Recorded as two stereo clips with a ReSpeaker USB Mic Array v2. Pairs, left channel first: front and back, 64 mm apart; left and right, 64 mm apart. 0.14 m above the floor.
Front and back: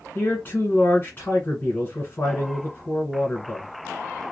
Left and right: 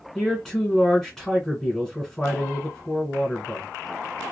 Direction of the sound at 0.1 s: 15° left.